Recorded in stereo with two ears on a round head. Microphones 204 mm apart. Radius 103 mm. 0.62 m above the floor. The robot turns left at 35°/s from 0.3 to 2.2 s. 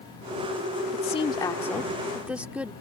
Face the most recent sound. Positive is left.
turn(degrees=-5)